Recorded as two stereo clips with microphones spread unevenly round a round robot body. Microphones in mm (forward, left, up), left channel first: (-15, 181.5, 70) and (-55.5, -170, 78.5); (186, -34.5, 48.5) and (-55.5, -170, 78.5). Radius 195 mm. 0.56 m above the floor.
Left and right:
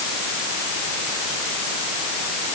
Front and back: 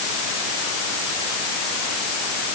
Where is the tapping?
I don't hear tapping.